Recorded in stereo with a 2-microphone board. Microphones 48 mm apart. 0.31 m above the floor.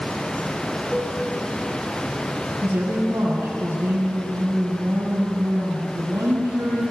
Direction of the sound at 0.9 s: 10° left (ahead or behind).